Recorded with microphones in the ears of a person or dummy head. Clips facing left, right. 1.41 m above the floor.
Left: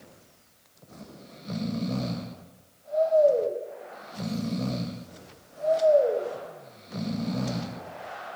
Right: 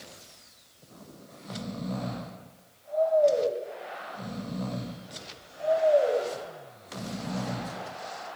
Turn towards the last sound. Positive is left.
turn(degrees=35)  # may be behind; listen again after turning